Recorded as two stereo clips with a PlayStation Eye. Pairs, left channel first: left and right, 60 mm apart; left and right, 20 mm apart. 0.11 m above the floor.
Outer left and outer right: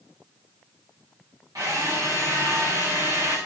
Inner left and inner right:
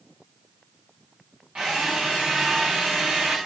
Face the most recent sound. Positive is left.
turn(degrees=-75)  # may be behind; listen again after turning